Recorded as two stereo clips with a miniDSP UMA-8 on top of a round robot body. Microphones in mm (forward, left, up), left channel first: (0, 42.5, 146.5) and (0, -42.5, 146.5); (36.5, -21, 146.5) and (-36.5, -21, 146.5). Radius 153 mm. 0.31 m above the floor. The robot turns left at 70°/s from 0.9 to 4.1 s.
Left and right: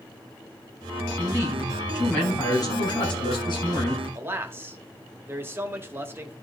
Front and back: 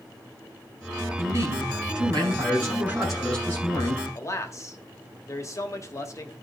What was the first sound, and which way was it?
A man speaking, 130° right.